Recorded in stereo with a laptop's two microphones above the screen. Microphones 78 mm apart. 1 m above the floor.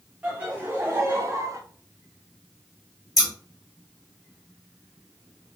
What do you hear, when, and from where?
0.2 s laughter: 20° right (ahead or behind), 1.7 m; by 1.6 s 40° right (ahead or behind), 1.1 m
3.2 s scissors: 50° left (ahead or behind), 3.5 m